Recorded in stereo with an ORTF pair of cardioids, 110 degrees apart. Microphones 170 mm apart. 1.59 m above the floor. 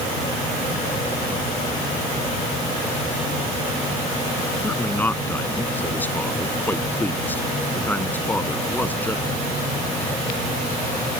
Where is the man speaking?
10° left.